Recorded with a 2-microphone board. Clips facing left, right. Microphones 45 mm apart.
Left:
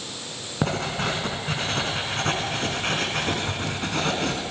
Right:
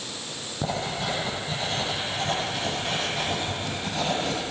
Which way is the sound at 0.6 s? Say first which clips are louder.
Left 3 dB; 65° left (ahead or behind).